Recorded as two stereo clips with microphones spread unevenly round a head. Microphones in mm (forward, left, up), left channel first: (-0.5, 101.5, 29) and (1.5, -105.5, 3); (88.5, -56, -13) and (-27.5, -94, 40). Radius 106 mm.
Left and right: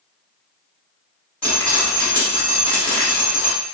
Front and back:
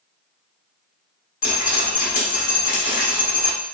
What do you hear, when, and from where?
1.4 s dripping: 10° left, 1.2 m